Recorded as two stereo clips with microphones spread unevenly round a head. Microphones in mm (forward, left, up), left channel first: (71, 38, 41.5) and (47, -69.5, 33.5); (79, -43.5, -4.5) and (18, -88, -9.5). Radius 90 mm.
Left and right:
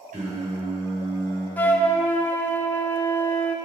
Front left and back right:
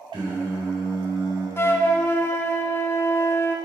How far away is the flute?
About 0.5 m.